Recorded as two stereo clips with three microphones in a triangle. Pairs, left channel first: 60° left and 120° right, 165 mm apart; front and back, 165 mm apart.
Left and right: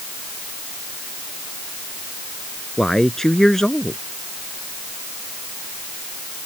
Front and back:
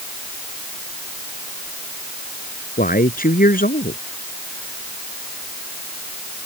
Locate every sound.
2.8 s a man speaking: 30° right